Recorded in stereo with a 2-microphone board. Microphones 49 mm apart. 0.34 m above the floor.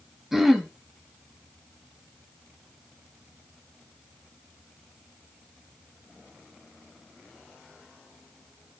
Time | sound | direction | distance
0.3 | throat clearing | 10° right (ahead or behind) | 1.8 m